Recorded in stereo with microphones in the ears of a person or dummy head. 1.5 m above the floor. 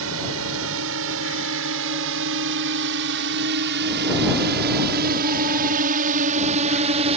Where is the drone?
75° right (ahead or behind); by 7.2 s 35° right (ahead or behind).